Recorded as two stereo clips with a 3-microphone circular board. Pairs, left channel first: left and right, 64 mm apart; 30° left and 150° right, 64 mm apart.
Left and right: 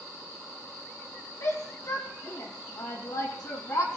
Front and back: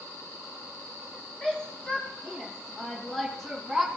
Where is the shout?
105° left, 5 m; by 3.9 s 120° left, 3.5 m.